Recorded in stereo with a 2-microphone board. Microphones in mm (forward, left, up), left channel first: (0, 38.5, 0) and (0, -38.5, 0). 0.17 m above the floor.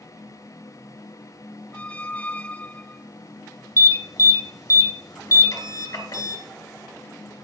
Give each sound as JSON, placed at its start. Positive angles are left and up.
{"t": 1.7, "sound": "a squeak", "side_deg": 20, "distance_m": 0.6}
{"t": 3.8, "sound": "an alarm", "side_deg": 45, "distance_m": 2.5}